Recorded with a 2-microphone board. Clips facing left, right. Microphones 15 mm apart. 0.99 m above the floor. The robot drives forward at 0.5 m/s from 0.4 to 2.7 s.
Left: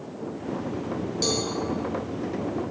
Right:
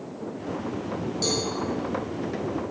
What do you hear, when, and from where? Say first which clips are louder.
1.2 s a cowbell: even; 10° left (ahead or behind), 0.6 m